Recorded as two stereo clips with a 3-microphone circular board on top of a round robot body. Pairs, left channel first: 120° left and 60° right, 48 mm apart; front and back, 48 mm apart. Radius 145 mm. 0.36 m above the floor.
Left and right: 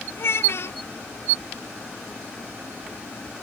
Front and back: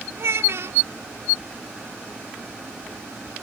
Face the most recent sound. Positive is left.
turn(degrees=155)